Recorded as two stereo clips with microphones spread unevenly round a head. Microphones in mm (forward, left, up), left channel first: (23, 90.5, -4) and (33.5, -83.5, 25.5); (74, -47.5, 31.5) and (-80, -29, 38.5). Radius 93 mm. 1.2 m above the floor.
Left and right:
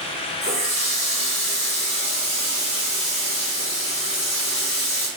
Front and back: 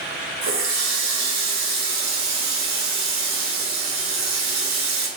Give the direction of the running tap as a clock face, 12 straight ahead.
7 o'clock.